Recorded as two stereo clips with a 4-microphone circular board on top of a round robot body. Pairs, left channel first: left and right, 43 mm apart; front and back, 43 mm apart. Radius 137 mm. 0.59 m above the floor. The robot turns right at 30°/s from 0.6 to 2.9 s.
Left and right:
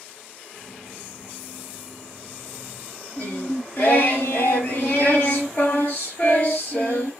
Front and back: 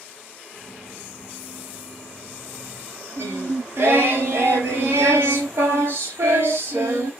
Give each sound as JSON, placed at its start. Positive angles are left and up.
{"t": 3.2, "sound": "singing", "azimuth_deg": 150, "distance_m": 0.5}